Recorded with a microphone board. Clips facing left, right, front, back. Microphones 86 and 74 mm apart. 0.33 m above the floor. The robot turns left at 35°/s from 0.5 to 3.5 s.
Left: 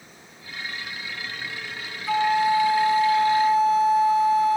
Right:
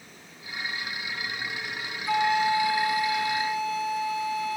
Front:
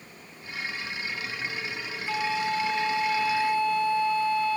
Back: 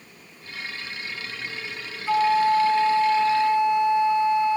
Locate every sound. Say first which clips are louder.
2.1 s a flute: left 3 dB, back 9 dB; 170° left; by 4.6 s 120° left